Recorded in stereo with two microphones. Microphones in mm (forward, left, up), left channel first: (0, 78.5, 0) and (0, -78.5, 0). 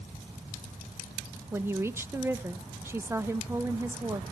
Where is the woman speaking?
15° right (ahead or behind), 0.5 m.